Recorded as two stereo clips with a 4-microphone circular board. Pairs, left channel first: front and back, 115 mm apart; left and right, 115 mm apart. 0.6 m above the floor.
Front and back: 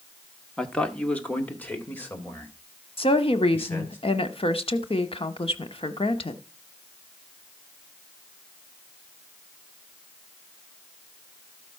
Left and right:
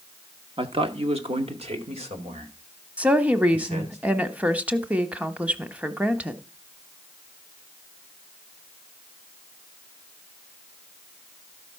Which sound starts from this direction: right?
A man speaking, at 0.6 s.